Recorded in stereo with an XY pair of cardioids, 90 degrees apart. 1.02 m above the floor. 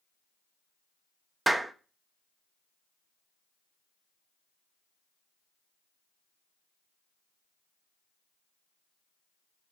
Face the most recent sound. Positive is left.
turn(degrees=-15)